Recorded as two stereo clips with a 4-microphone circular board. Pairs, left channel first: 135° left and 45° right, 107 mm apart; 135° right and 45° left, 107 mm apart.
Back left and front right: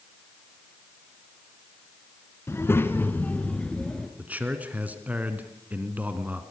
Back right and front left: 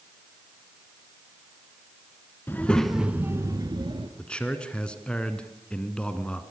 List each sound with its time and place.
2.5 s a child speaking: 175° left, 1.4 m; by 4.1 s 50° left, 1.9 m
4.2 s a man speaking: 80° right, 1.5 m